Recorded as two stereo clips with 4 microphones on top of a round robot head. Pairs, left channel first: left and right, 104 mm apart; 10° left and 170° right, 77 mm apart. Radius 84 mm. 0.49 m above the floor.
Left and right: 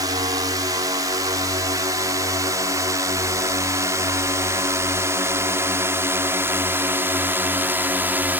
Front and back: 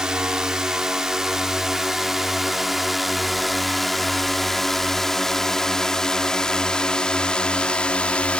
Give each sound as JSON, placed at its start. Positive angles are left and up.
{"t": 0.0, "sound": "a drone", "azimuth_deg": -100}